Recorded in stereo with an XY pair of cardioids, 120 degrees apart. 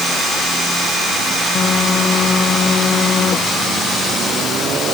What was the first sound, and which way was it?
A phone buzzing, 45° left.